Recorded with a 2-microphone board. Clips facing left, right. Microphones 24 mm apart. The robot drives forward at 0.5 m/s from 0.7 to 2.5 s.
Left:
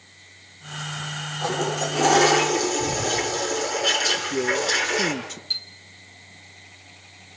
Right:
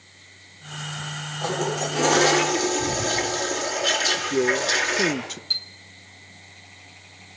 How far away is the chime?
About 0.7 m.